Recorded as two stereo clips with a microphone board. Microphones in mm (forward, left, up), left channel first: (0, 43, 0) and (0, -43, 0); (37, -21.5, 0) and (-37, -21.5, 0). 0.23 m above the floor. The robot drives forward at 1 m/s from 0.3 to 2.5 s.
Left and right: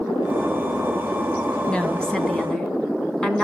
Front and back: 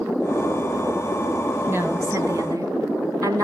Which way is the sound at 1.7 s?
165° left.